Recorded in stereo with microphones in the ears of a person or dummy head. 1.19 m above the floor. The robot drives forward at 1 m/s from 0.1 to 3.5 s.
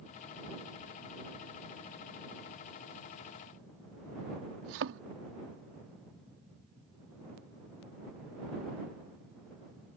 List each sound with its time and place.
4.6 s a thud: 65° right (ahead or behind)